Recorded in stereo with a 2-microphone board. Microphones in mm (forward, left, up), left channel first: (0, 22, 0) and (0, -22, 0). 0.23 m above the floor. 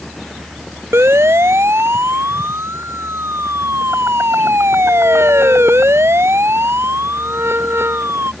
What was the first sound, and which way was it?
A siren, 85° right.